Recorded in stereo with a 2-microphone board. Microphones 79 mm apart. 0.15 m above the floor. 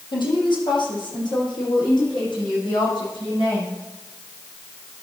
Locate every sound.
0.1 s a woman speaking: 75° left (ahead or behind), 5 m; by 3.8 s 70° left (ahead or behind), 9.5 m